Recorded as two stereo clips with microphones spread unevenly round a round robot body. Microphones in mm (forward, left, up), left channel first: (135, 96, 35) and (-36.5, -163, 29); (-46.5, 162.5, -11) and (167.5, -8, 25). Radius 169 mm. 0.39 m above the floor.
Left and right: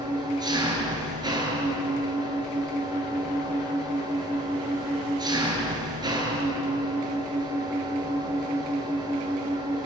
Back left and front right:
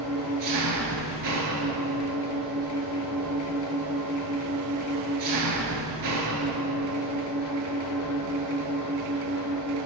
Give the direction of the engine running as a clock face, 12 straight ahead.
2 o'clock.